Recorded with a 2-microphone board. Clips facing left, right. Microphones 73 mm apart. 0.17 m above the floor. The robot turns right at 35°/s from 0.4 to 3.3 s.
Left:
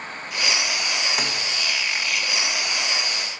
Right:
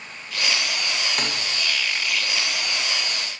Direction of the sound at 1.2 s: 10° left (ahead or behind).